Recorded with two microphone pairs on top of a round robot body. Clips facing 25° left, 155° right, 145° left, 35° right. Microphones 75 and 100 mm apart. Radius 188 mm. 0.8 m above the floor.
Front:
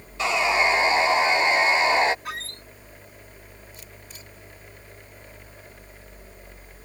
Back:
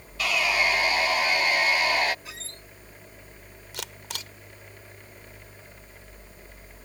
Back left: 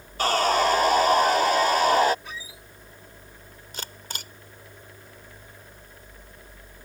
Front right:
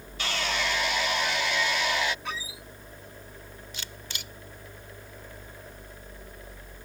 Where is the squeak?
20° right.